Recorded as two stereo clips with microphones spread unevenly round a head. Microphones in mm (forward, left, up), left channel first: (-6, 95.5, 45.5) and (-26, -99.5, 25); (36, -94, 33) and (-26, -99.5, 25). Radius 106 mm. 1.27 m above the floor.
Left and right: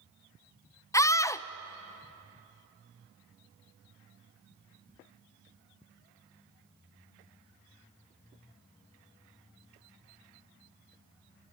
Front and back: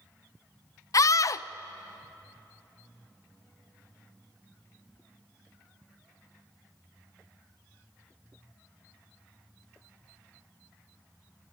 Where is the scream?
10° left, 0.7 m.